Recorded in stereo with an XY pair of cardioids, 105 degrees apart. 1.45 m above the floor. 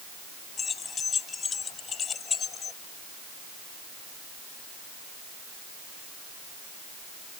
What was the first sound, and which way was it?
Keys jangling, 40° left.